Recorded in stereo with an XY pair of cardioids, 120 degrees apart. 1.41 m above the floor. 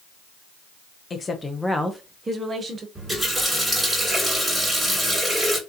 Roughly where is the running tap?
Ahead.